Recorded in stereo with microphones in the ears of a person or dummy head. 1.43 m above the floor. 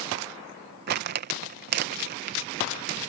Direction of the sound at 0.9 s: 45° right (ahead or behind).